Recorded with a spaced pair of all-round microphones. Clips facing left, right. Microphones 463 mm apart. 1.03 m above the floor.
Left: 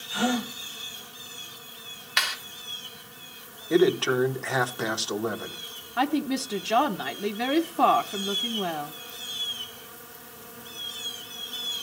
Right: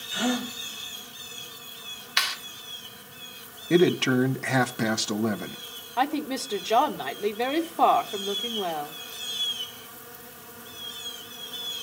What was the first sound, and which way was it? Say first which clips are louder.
A gasp: left 1 dB; 75° left (ahead or behind).